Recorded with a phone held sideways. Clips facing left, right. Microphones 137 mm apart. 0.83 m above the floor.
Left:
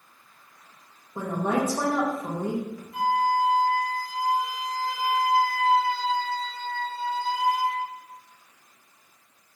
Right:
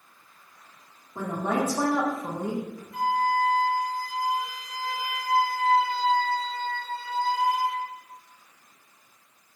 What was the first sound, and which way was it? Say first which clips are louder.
A woman speaking: left 1 dB; 15° left (ahead or behind).